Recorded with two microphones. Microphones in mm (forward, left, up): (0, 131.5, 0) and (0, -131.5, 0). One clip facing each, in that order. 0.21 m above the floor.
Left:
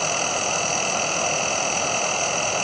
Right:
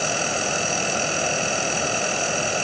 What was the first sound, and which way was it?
Only background noise.